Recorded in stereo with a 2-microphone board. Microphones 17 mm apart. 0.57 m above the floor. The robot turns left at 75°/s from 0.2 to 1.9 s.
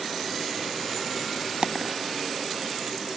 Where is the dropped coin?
85° right; by 2.0 s 65° right (ahead or behind).